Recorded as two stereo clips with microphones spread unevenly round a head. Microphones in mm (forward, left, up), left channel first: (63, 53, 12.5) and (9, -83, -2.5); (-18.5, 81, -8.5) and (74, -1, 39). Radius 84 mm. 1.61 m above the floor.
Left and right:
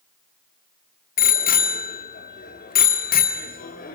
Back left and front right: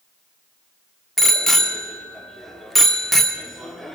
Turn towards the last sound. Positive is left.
turn(degrees=45)